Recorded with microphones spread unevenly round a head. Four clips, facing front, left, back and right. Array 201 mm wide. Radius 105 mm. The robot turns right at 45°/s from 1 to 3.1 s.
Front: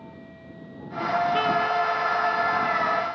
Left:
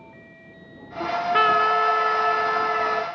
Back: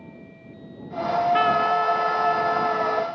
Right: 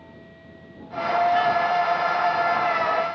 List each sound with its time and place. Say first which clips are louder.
1.0 s a trumpet: right 1 dB, back 3 dB; 60° left; by 3.0 s 155° left